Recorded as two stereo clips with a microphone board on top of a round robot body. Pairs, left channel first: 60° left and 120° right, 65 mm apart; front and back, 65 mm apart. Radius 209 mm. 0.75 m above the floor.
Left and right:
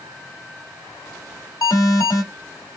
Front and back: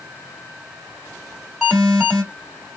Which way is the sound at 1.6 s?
85° left.